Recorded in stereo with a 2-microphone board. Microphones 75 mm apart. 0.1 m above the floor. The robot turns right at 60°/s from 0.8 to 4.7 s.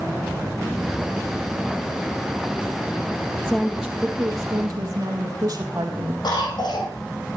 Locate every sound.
3.4 s a woman speaking: 160° left, 3.5 m; by 6.1 s 125° right, 3.5 m
6.2 s a cough: 75° left (ahead or behind), 5.5 m